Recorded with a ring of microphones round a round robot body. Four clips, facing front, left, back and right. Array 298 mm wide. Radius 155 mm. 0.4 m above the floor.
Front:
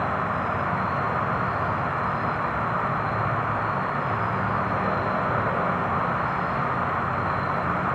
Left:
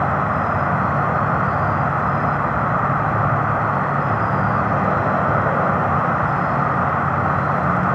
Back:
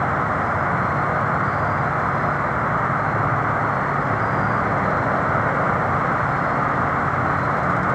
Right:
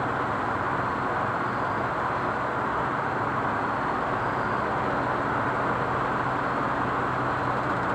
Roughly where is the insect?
Left.